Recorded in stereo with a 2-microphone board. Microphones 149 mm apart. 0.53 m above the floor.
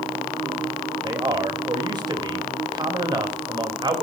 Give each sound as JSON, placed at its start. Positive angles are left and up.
{"t": 1.0, "sound": "a man speaking", "side_deg": -30, "distance_m": 3.5}